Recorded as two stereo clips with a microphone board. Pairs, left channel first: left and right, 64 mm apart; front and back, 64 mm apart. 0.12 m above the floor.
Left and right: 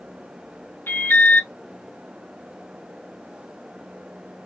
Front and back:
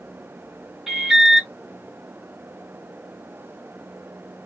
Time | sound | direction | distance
0.9 | an alarm | 100° left | 1.3 m